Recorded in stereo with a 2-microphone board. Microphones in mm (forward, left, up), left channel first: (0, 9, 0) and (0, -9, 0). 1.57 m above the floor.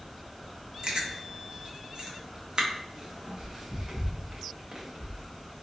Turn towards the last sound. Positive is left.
turn(degrees=-55)  # may be behind; listen again after turning